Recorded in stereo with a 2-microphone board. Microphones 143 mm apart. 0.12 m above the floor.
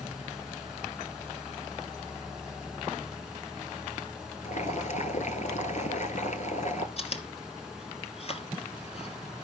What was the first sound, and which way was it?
Boiling, 60° left (ahead or behind).